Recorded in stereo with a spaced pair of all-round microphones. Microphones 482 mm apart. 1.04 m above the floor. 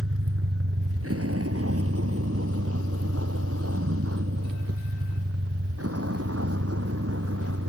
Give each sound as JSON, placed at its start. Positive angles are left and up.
{"t": 0.0, "sound": "a vehicle", "side_deg": -30}